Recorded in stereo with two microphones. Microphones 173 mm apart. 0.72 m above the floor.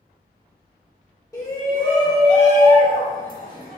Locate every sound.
1.3 s a shout: 20° left (ahead or behind), 1.5 m; by 3.8 s 70° left (ahead or behind), 1.1 m